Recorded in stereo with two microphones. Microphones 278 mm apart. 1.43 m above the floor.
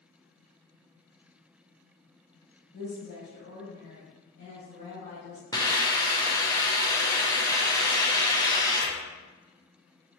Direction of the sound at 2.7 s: 45° left (ahead or behind).